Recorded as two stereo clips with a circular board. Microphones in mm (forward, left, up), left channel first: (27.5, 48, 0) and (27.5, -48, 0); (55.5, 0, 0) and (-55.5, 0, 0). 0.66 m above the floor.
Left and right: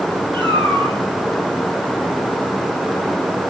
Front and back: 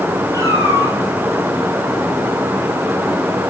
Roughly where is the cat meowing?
Behind right.